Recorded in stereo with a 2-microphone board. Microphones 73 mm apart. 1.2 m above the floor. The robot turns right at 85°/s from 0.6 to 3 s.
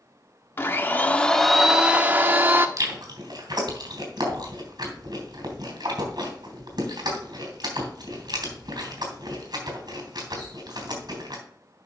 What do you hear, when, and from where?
0.6 s a blender: 100° left, 0.8 m; by 2.7 s 85° right, 0.8 m
2.8 s chewing: 45° right (ahead or behind), 3 m; by 11.4 s 65° right (ahead or behind), 3 m